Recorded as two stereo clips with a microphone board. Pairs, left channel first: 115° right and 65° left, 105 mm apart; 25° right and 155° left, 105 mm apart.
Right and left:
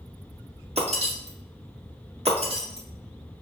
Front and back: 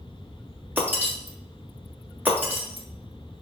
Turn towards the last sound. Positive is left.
turn(degrees=85)